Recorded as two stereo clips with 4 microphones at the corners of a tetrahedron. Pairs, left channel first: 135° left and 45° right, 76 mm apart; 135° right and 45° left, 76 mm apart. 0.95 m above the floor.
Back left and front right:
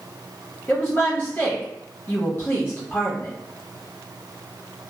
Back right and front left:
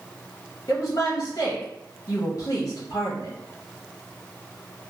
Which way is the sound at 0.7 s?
170° right.